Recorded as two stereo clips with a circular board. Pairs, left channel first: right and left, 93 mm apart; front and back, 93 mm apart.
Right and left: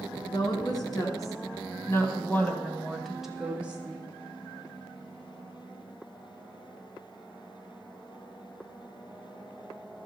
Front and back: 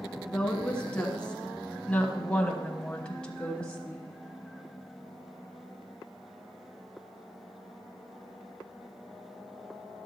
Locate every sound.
0.3 s a woman speaking: 75° right, 2.5 m; by 4.0 s 70° left, 1.5 m